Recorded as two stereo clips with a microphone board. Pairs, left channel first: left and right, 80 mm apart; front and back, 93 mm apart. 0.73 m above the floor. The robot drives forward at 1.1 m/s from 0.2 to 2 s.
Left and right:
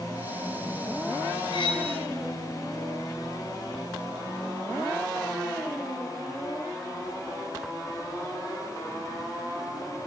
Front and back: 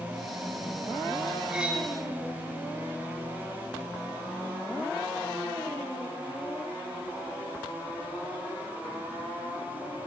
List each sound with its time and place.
1.5 s cutlery clinking: 100° left, 2 m; by 1.9 s 110° left, 2 m